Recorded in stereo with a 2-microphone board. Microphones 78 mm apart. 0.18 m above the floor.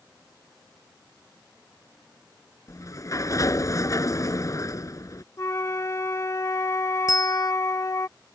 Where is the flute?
40° left (ahead or behind).